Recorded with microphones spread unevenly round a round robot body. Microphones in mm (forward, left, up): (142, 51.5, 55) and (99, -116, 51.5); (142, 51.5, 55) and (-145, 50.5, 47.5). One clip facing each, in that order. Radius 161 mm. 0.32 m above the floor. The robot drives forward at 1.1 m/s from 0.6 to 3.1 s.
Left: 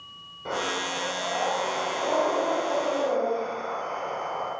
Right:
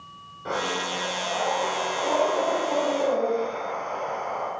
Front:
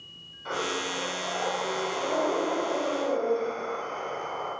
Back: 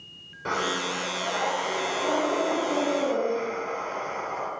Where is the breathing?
160° left, 8 m; by 4.5 s 165° left, 10.5 m.